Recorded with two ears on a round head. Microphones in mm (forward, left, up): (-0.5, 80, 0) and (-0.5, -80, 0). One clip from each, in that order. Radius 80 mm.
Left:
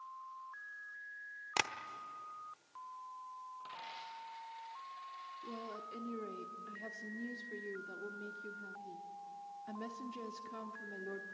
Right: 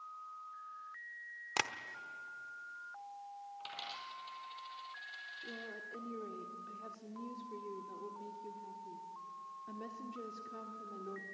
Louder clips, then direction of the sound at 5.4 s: Even; 35° left (ahead or behind).